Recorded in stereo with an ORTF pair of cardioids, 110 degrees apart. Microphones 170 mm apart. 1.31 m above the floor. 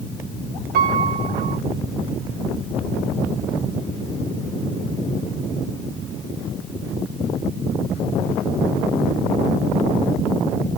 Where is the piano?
60° right, 1.0 m.